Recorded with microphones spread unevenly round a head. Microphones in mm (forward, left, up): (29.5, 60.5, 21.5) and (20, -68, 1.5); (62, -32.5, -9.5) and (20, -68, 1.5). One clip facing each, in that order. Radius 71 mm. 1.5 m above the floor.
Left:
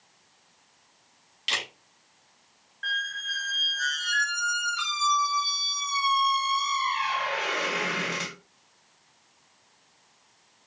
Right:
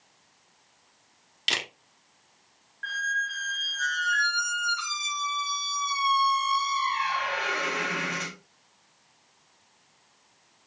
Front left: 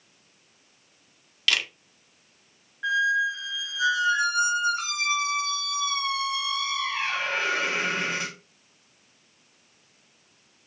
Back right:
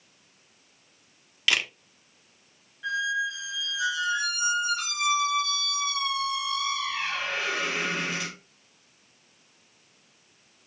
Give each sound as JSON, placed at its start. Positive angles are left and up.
{"t": 1.5, "sound": "a camera shutter", "azimuth_deg": -75, "distance_m": 0.9}
{"t": 2.8, "sound": "a squeak", "azimuth_deg": 95, "distance_m": 1.1}